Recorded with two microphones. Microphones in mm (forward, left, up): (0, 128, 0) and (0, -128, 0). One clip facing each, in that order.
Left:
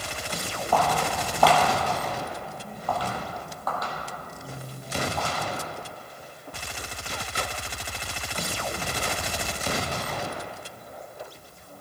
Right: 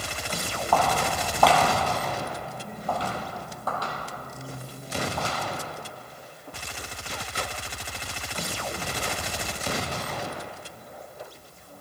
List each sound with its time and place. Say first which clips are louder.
0.7 s footsteps: even; 15° left (ahead or behind), 1.7 m; by 5.3 s 45° right (ahead or behind), 3 m